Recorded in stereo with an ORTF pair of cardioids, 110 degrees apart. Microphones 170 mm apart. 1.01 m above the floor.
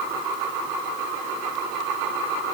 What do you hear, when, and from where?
Only background noise.